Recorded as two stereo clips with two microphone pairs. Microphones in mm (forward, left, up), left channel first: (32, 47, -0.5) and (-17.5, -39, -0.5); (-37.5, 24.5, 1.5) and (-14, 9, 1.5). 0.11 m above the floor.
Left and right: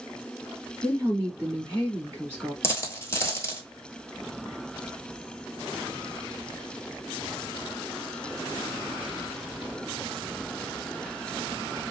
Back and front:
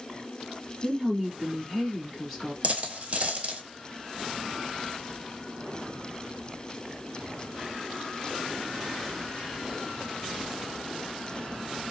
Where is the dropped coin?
Straight ahead, 0.8 m.